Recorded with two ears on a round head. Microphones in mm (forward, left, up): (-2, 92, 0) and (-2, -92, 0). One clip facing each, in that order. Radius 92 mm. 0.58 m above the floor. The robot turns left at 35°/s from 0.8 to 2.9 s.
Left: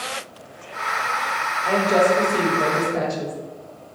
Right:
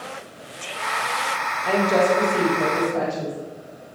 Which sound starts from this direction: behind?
A woman speaking, at 1.6 s.